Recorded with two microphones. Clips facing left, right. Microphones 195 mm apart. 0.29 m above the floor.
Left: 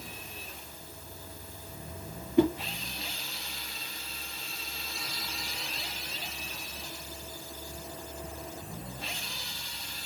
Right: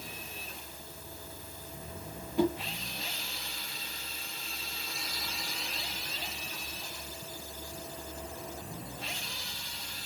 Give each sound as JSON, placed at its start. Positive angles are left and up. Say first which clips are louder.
{"t": 2.4, "sound": "a whoosh", "louder": "left 4 dB", "side_deg": 65, "distance_m": 1.5}